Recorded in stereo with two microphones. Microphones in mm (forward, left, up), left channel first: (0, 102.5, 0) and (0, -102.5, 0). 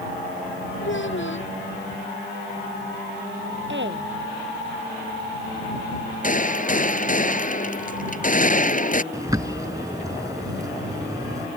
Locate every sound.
0.8 s a child speaking: 70° left (ahead or behind)
3.7 s a woman speaking: 65° right (ahead or behind)
6.2 s a gunshot: 40° left (ahead or behind)
9.1 s a bird: 15° right (ahead or behind)